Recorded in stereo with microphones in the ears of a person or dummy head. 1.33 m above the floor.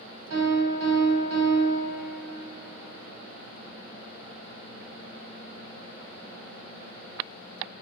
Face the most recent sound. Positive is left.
turn(degrees=-75)  # may be behind; listen again after turning